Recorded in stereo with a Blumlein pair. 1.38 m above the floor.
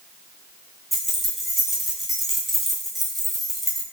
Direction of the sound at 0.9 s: Straight ahead.